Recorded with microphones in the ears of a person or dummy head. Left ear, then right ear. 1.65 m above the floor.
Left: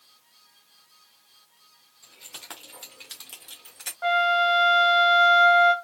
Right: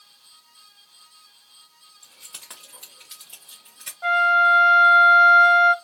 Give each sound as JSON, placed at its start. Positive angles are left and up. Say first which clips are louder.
{"t": 2.0, "sound": "keys jangling", "louder": "left 1 dB", "side_deg": -15, "distance_m": 1.0}
{"t": 4.0, "sound": "a flute", "louder": "right 4 dB", "side_deg": 20, "distance_m": 0.7}